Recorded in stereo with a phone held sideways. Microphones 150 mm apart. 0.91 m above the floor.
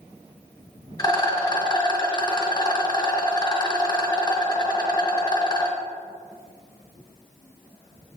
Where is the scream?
I don't hear a scream.